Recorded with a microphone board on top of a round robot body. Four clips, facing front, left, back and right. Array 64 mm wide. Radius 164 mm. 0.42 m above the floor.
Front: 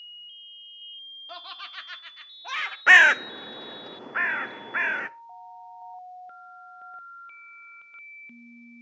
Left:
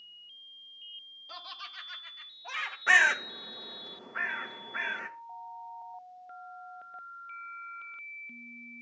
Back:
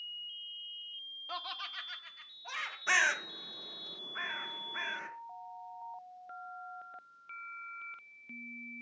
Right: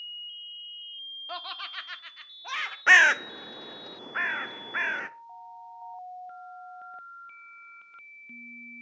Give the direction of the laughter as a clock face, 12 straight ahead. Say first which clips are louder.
Right 7 dB, front 1 dB; 3 o'clock.